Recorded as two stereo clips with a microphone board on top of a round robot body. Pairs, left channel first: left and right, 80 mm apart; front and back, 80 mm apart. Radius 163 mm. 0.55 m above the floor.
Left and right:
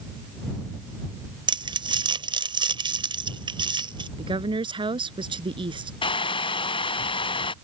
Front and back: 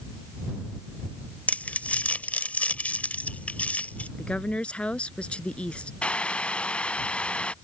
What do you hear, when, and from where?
1.5 s crumpling: 75° right
4.2 s a woman speaking: 75° right
6.0 s boiling: 75° left